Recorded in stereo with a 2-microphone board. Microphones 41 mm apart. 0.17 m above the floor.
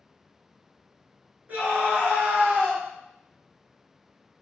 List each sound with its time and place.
1.5 s a scream: 45° right (ahead or behind), 2 m